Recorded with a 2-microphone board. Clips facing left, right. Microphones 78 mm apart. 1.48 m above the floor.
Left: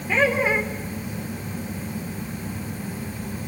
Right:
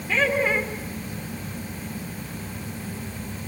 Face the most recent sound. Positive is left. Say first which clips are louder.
# left 2 dB
turn(degrees=10)  # may be behind; listen again after turning